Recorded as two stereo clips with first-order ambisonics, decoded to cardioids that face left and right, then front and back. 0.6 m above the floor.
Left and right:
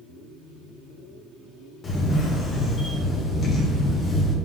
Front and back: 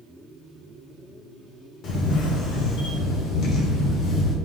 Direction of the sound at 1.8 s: 30° left.